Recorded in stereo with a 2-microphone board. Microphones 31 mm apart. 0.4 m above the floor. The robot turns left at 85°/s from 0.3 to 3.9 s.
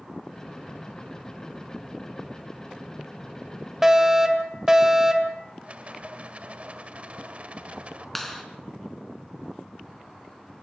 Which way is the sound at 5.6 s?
40° right (ahead or behind).